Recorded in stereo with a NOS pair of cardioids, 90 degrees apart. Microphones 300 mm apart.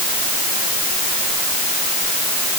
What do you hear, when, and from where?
Only background noise.